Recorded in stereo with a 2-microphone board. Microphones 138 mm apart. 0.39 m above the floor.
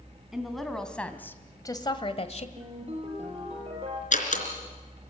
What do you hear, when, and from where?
0.3 s a woman speaking: 5° right (ahead or behind), 3 m; by 2.5 s 55° left (ahead or behind), 1.6 m
2.6 s a ringtone: 45° right (ahead or behind), 6.5 m
4.1 s a door slam: 65° left (ahead or behind), 3.5 m